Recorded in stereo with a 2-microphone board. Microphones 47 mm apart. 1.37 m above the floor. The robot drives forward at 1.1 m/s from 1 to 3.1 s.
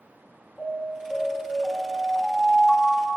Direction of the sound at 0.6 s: 15° left (ahead or behind).